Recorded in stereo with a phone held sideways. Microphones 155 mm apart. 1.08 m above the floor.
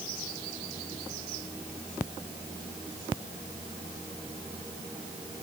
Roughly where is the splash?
No splash in this recording.